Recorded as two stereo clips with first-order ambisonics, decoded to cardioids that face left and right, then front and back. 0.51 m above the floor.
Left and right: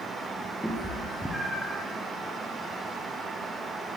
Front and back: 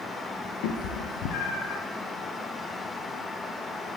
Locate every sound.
0.6 s a cat meowing: straight ahead, 1.4 m